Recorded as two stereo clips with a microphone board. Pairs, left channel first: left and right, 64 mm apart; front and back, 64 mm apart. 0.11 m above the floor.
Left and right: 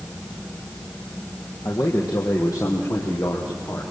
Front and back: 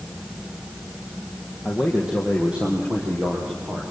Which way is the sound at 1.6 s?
95° left.